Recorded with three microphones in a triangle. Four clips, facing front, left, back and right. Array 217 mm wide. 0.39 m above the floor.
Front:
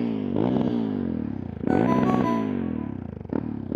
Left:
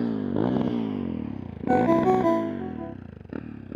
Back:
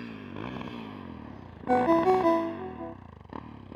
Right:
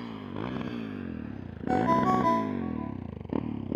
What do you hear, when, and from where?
0.0 s a motorcycle: 40° left; by 3.8 s 25° right
1.7 s a ringtone: 125° left